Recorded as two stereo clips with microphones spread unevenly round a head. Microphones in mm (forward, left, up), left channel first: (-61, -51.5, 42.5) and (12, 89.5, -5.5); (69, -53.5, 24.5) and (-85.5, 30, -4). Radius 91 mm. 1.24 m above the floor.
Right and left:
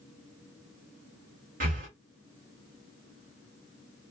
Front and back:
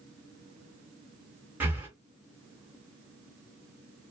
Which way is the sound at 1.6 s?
65° left.